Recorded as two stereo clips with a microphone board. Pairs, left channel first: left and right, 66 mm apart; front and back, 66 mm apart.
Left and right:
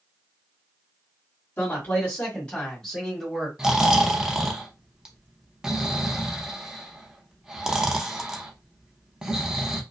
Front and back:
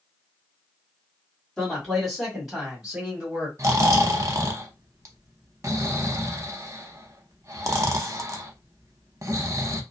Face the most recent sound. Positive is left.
turn(degrees=-165)